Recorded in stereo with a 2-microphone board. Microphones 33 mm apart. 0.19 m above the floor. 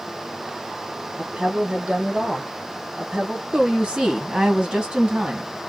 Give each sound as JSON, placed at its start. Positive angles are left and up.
{"t": 1.2, "sound": "a woman speaking", "side_deg": -25, "distance_m": 1.2}
{"t": 3.5, "sound": "a woman speaking", "side_deg": -30, "distance_m": 1.6}